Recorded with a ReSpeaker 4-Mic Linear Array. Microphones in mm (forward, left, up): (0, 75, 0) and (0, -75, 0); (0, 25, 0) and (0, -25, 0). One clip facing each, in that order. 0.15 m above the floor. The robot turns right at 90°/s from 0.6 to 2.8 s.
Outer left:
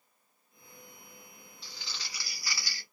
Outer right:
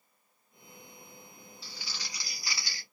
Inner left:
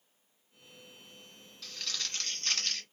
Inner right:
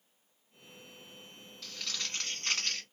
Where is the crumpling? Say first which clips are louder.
Even, even; 5° right (ahead or behind), 1.2 m; by 2.8 s 20° right (ahead or behind), 1.2 m.